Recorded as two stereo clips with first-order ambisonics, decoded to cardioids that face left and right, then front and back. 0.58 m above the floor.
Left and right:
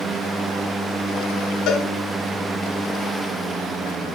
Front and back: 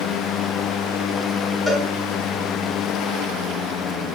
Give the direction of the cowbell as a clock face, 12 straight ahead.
9 o'clock.